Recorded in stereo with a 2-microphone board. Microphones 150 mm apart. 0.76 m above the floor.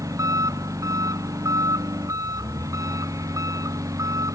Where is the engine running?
20° right (ahead or behind).